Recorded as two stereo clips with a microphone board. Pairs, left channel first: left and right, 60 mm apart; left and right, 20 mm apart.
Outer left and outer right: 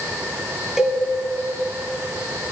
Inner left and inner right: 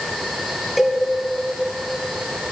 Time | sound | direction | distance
0.8 | a cowbell | 10° right (ahead or behind) | 1.5 m